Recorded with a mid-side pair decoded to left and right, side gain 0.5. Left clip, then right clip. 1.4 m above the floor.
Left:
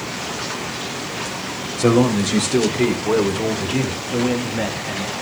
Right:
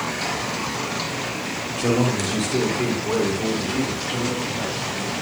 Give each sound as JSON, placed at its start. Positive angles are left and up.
{"t": 1.8, "sound": "a man speaking", "azimuth_deg": 45, "distance_m": 5.0}
{"t": 4.1, "sound": "a man speaking", "azimuth_deg": 55, "distance_m": 2.5}